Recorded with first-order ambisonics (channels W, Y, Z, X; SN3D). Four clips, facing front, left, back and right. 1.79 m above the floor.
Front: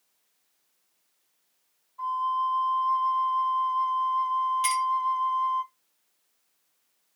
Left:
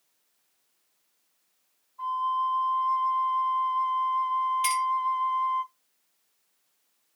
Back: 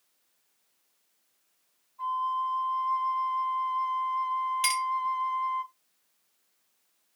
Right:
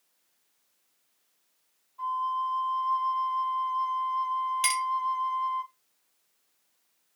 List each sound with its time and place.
2.0 s a flute: 20° right, 2 m
4.6 s a clink: 120° right, 2.0 m